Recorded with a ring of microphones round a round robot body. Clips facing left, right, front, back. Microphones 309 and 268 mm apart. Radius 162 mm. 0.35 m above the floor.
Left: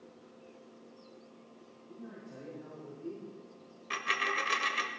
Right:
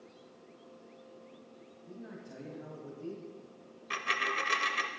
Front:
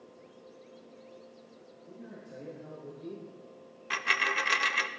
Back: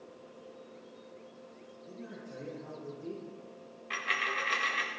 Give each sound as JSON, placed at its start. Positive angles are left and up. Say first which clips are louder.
{"t": 1.9, "sound": "a man speaking", "louder": "right 1 dB, back 1 dB", "azimuth_deg": -90, "distance_m": 3.5}
{"t": 3.9, "sound": "a dropped coin", "louder": "even, front 4 dB", "azimuth_deg": 0, "distance_m": 0.8}